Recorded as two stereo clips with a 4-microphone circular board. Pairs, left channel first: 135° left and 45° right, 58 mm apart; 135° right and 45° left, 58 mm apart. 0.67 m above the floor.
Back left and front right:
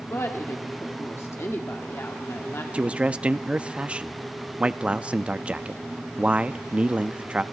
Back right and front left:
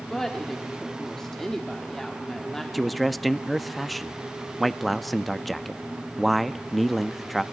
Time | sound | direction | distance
0.1 | a woman speaking | 145° left | 1.6 m
2.7 | a man speaking | 45° right | 0.6 m